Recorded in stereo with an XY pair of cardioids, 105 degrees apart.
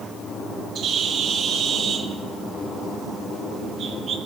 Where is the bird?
60° right, 1.3 m.